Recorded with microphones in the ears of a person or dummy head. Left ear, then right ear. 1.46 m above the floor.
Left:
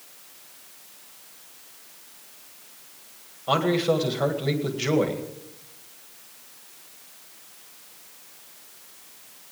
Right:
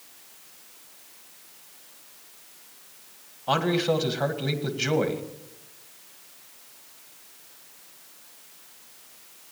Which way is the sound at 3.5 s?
Centre (ahead or behind).